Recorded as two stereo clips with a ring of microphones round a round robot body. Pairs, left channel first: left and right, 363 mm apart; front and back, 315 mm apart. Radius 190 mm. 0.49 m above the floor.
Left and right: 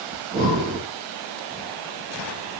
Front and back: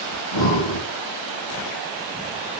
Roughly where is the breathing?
Ahead right.